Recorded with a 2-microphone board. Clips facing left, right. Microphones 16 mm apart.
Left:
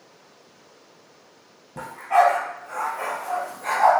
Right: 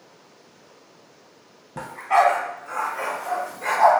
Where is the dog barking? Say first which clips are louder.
Even; 20° right (ahead or behind), 0.6 m; by 3.9 s 50° right (ahead or behind), 1.7 m.